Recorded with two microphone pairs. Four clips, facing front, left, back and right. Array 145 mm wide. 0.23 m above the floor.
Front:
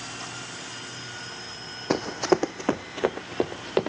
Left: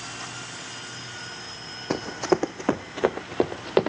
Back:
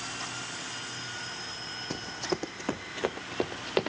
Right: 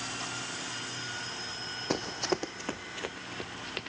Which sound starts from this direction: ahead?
Running footsteps, at 1.9 s.